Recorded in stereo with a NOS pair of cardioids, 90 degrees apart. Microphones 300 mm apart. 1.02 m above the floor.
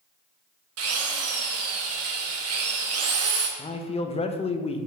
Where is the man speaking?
20° left, 0.5 m.